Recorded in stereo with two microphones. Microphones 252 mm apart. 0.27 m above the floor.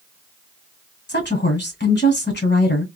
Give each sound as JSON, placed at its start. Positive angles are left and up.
{"t": 1.1, "sound": "a woman speaking", "side_deg": 45, "distance_m": 1.7}